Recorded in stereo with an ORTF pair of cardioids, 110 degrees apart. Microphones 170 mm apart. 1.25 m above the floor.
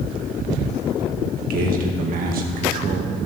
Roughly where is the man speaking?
Ahead right.